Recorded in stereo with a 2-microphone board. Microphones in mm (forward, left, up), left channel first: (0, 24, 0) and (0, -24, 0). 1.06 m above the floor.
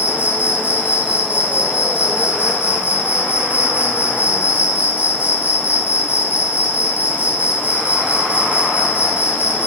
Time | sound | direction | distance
0.0 | an insect | 30° right (ahead or behind) | 4 m